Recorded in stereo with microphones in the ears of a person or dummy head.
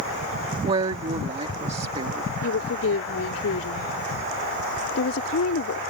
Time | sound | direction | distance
0.6 | a woman speaking | 30° right (ahead or behind) | ?
2.4 | a woman speaking | 75° left (ahead or behind) | ?